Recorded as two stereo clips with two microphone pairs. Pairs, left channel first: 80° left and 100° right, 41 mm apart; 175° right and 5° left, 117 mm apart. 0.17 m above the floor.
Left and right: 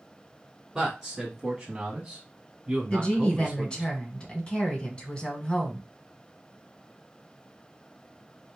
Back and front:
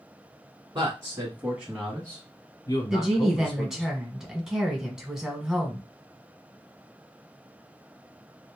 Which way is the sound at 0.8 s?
25° right.